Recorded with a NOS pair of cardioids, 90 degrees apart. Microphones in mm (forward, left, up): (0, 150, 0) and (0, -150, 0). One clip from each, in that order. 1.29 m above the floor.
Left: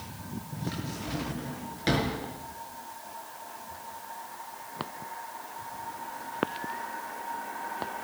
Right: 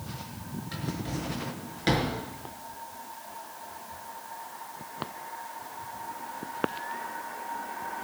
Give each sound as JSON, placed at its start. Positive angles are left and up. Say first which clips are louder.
{"t": 0.7, "sound": "a drawer", "louder": "right 2 dB", "azimuth_deg": -10, "distance_m": 6.0}